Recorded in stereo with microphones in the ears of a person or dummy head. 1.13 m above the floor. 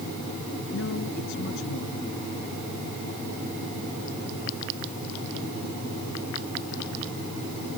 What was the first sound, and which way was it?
A man speaking, 65° left (ahead or behind).